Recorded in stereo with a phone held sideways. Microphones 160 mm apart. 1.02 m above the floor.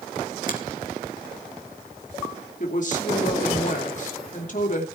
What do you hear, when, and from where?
0.5 s a finger snap: 60° left (ahead or behind), 2.5 m
2.6 s a woman speaking: 50° left (ahead or behind), 2.5 m